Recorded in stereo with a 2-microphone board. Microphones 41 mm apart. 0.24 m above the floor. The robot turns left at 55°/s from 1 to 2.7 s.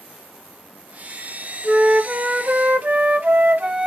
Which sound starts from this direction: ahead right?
A flute, at 1.6 s.